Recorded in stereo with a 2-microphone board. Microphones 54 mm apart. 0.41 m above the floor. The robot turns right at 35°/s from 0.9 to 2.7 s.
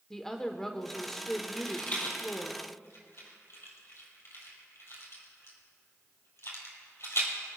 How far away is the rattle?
About 2.5 m.